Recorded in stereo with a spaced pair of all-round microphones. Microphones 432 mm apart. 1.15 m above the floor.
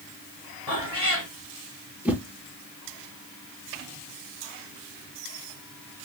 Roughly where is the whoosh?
Centre.